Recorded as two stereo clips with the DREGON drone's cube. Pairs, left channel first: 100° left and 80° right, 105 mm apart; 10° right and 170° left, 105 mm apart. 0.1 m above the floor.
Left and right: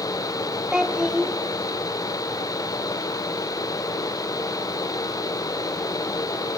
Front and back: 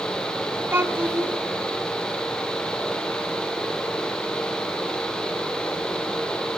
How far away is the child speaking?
About 1.0 m.